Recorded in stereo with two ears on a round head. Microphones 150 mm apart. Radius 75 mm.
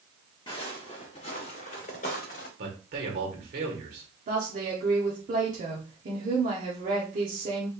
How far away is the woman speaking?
About 1.2 m.